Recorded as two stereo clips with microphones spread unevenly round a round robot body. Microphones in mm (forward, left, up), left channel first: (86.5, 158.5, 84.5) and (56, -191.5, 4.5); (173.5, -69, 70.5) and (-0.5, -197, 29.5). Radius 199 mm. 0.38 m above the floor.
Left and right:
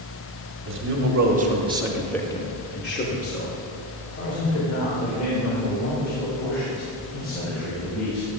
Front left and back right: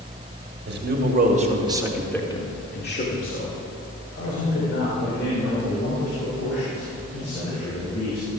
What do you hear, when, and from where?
0.7 s a man speaking: 135° right, 2.5 m; by 8.3 s 35° left, 7.5 m